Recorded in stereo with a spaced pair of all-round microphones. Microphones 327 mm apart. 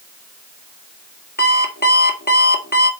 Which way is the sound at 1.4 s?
30° left (ahead or behind).